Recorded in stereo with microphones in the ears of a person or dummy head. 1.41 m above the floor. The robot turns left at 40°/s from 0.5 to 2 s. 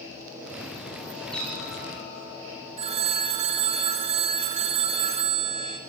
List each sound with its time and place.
1.3 s a cat meowing: 5° left (ahead or behind), 7.5 m; by 2.3 s 30° left (ahead or behind), 7.5 m
2.8 s a phone ringing: 30° right (ahead or behind), 1.0 m